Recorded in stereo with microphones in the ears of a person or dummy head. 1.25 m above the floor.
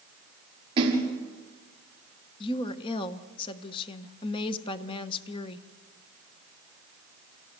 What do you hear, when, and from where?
0.8 s a splash: 25° right (ahead or behind), 5.5 m
2.4 s a woman speaking: 25° left (ahead or behind), 1.0 m